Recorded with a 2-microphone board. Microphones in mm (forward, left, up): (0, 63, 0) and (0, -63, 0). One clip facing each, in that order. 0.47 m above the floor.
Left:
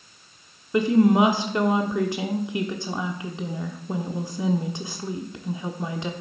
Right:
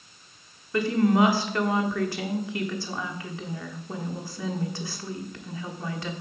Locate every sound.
0.7 s a woman speaking: 20° left (ahead or behind), 0.8 m